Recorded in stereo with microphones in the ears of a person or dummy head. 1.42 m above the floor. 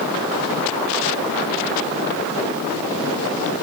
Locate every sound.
Only background noise.